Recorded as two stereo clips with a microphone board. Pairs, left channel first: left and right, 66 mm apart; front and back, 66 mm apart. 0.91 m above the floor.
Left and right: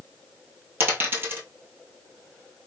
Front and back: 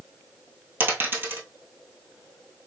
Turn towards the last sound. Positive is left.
turn(degrees=-135)